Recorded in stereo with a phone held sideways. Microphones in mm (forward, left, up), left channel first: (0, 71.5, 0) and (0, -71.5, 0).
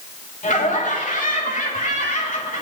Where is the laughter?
60° left (ahead or behind), 3 m.